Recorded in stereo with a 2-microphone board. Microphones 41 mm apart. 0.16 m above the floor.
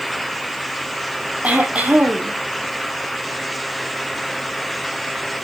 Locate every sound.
1.4 s throat clearing: 40° right (ahead or behind), 1.8 m